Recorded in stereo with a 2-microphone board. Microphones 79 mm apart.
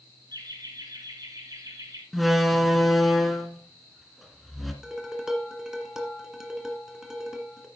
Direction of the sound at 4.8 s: 5° right (ahead or behind).